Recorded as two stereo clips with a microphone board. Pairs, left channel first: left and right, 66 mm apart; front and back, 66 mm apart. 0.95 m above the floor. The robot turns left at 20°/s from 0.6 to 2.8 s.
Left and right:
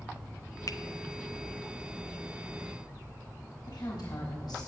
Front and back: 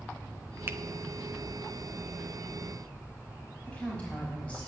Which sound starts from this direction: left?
A woman speaking, at 3.7 s.